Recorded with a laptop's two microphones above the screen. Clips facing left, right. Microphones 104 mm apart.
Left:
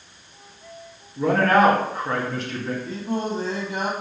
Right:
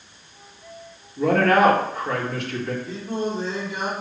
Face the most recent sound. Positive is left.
turn(degrees=50)  # may be behind; listen again after turning